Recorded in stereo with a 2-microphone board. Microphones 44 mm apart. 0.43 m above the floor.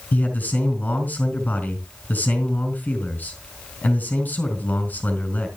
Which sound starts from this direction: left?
A man speaking, at 0.1 s.